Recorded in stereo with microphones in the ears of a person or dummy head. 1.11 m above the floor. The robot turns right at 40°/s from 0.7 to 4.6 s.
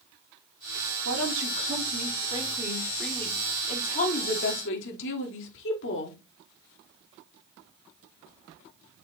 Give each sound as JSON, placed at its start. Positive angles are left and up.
{"t": 1.1, "sound": "a woman speaking", "azimuth_deg": -80, "distance_m": 3.0}